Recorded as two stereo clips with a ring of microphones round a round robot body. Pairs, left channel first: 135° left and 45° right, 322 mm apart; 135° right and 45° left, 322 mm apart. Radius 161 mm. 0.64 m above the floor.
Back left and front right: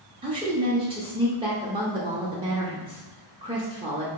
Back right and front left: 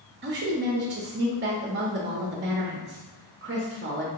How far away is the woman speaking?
About 0.6 m.